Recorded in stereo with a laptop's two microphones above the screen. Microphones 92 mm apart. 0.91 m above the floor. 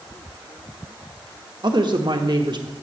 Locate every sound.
1.6 s a woman speaking: 55° right (ahead or behind), 1.2 m